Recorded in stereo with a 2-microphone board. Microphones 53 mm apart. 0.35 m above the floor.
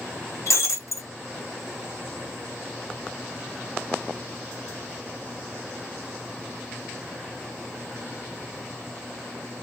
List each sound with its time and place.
0.5 s breaking glass: 65° left (ahead or behind), 2.5 m